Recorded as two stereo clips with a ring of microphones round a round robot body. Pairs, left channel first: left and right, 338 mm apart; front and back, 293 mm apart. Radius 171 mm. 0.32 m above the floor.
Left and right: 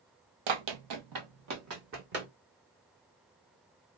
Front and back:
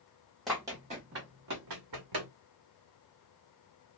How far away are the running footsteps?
About 0.8 m.